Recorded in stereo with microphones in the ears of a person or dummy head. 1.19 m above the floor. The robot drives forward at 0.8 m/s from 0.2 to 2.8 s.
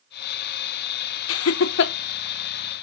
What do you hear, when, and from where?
1.3 s laughter: 65° left (ahead or behind), 0.7 m; by 1.9 s 55° left (ahead or behind), 0.8 m